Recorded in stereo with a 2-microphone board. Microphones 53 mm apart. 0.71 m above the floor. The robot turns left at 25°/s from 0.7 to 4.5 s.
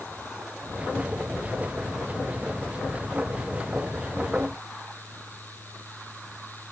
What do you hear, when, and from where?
Only background noise.